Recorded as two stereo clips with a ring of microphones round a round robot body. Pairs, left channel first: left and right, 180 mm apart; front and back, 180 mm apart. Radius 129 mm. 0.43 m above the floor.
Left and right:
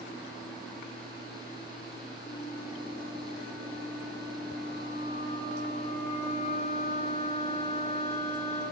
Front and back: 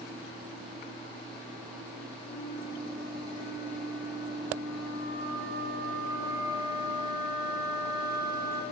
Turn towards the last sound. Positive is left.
turn(degrees=120)